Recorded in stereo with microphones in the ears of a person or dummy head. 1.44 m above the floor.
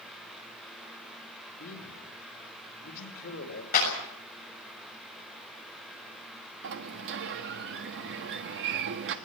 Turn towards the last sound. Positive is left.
turn(degrees=-65)  # may be behind; listen again after turning